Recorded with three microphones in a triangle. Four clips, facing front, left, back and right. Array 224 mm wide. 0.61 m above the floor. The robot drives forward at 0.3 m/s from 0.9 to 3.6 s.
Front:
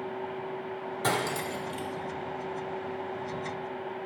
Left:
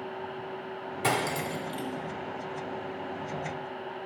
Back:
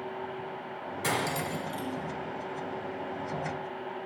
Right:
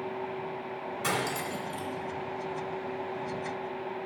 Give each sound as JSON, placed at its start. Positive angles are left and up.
{"t": 1.0, "sound": "cutlery clinking", "azimuth_deg": 55, "distance_m": 0.9}